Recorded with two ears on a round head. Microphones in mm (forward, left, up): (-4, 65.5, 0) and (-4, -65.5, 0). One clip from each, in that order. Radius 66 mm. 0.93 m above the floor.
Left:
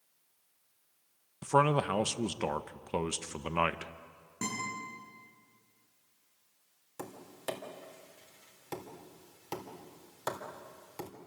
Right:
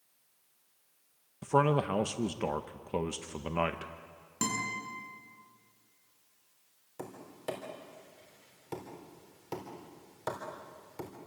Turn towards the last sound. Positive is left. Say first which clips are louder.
# even
turn(degrees=35)  # may be behind; listen again after turning